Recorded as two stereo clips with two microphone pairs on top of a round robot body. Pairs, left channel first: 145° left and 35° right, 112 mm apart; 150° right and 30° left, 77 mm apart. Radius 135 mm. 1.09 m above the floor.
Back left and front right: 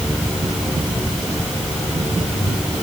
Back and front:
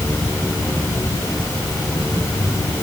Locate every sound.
Only background noise.